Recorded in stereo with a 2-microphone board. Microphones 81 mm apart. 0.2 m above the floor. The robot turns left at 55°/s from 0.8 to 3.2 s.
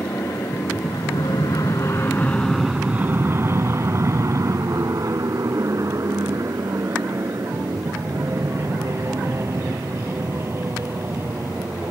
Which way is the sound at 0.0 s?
45° left (ahead or behind).